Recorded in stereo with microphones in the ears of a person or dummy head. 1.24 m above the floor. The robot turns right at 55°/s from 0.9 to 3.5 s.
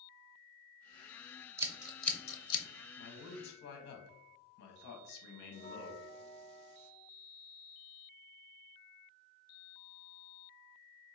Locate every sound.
1.6 s scissors: 15° right (ahead or behind), 0.7 m; by 2.6 s 35° left (ahead or behind), 0.7 m
3.0 s a man speaking: 85° left, 1.1 m; by 6.0 s 60° left (ahead or behind), 1.1 m
5.5 s a bell: 30° left (ahead or behind), 0.6 m